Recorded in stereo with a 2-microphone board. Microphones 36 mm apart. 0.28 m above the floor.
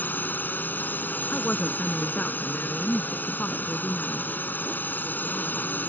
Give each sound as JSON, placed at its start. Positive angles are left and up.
{"t": 0.0, "sound": "a drone", "side_deg": 60}
{"t": 1.3, "sound": "a woman speaking", "side_deg": 55}